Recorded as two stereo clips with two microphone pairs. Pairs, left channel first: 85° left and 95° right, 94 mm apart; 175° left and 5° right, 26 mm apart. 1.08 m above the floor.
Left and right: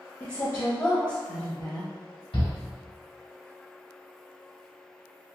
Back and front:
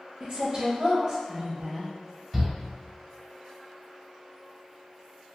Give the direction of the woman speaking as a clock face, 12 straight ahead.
11 o'clock.